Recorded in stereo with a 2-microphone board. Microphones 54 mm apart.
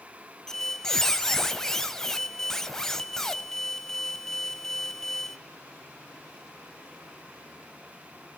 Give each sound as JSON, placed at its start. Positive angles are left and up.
{"t": 0.5, "sound": "a squeak", "side_deg": 5, "distance_m": 0.8}